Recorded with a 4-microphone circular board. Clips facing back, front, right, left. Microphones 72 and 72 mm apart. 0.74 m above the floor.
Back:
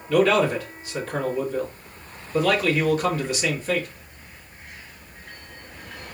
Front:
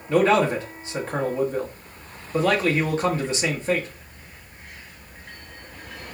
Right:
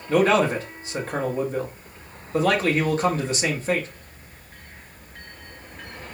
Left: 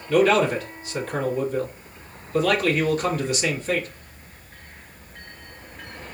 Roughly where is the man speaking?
Ahead right.